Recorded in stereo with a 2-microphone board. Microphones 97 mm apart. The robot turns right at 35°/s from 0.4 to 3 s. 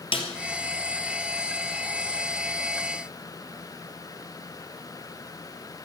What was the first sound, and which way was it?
A snare drum, 65° left (ahead or behind).